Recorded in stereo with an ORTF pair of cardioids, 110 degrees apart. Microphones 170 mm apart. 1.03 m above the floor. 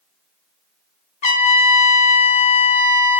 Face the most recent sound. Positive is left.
turn(degrees=45)